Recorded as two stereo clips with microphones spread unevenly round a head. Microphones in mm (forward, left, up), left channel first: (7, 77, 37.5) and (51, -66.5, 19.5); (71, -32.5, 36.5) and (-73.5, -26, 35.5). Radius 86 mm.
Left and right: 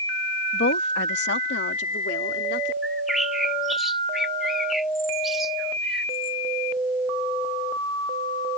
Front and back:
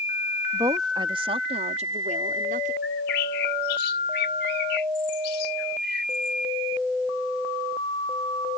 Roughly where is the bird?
Ahead.